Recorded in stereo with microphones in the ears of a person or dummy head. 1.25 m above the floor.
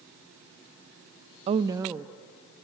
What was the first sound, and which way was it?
A woman speaking, 35° right (ahead or behind).